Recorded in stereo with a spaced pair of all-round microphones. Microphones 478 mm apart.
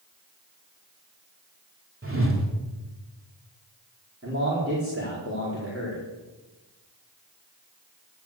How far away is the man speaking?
About 4 m.